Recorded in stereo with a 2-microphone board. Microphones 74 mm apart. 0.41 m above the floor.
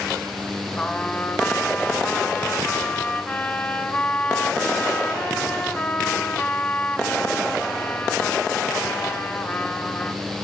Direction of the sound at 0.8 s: 15° left (ahead or behind).